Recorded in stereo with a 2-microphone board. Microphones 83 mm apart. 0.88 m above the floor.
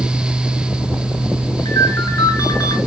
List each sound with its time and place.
1.6 s a ringtone: 40° left (ahead or behind), 6 m